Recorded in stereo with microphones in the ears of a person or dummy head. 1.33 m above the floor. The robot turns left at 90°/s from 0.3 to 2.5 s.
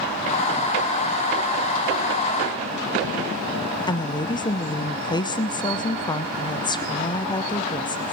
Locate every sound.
3.9 s a woman speaking: 20° left (ahead or behind), 0.5 m